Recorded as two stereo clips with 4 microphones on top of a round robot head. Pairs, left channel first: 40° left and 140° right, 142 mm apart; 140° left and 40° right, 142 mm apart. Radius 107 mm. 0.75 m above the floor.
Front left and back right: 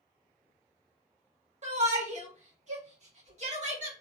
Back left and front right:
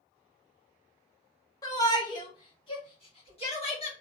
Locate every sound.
1.6 s a shout: 160° right, 1.7 m; by 3.9 s 175° right, 2.5 m